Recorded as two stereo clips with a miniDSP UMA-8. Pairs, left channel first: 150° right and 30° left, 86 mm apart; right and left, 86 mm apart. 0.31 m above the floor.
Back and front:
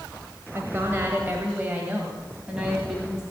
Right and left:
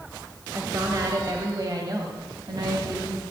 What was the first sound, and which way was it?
A woman speaking, 70° left.